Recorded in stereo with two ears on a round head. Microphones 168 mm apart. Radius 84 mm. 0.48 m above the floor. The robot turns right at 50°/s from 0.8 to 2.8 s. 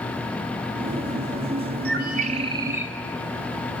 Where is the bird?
60° right, 2 m; by 2.9 s 10° right, 2 m.